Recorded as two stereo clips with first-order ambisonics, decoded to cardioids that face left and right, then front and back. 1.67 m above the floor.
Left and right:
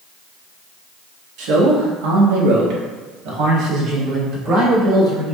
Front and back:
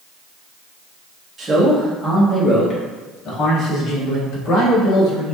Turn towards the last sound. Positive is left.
turn(degrees=-35)